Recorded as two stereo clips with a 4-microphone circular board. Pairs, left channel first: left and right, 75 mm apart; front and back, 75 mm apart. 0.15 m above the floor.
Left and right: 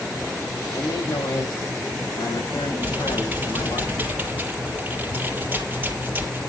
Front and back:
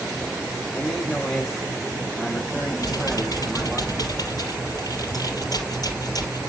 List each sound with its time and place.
0.7 s a man speaking: 85° left, 7 m; by 3.8 s 95° left, 8 m
2.8 s typing on a keyboard: 25° right, 3 m